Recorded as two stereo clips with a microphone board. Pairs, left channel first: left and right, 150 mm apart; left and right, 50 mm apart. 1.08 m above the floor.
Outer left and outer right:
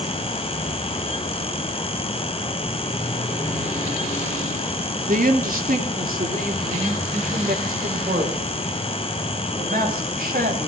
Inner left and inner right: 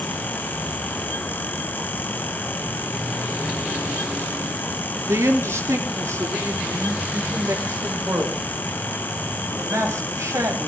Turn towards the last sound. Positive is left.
turn(degrees=-80)